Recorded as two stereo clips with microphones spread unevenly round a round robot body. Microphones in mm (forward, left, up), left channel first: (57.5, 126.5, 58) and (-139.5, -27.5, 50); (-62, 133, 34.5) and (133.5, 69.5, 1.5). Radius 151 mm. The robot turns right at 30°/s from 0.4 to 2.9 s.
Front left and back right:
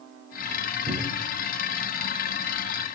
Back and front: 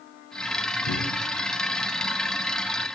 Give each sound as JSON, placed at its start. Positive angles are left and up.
{"t": 0.9, "sound": "a cupboard door", "azimuth_deg": 155, "distance_m": 2.0}